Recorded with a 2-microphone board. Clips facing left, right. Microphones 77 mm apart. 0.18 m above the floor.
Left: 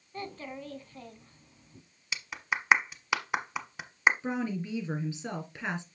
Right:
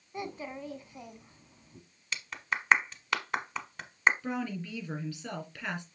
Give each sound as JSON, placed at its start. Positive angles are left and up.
{"t": 0.1, "sound": "a child speaking", "side_deg": -15, "distance_m": 0.9}
{"t": 2.1, "sound": "a clap", "side_deg": 10, "distance_m": 1.2}
{"t": 4.2, "sound": "a woman speaking", "side_deg": 25, "distance_m": 3.5}